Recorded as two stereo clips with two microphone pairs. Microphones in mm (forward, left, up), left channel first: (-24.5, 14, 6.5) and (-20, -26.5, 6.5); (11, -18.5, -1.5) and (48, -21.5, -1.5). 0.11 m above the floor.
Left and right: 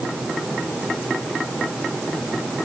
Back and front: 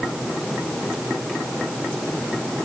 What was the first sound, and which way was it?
Only background noise.